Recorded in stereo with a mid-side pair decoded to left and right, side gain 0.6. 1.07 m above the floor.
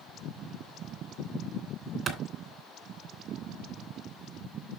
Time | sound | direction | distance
2.1 | a clap | 50° right | 3 m